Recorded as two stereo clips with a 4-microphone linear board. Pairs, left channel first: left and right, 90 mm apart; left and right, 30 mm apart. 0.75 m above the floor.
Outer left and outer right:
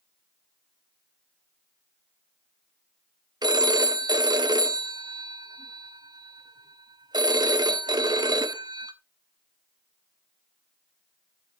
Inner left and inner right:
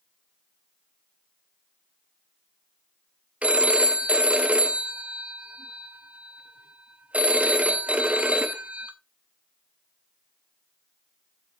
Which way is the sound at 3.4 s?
55° right (ahead or behind).